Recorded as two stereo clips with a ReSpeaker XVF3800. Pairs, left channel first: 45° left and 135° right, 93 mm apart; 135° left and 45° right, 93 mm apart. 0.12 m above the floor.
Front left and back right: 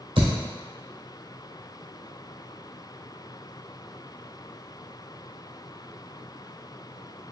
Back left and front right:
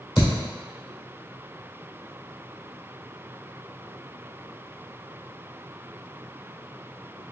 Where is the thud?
125° right, 1.8 m.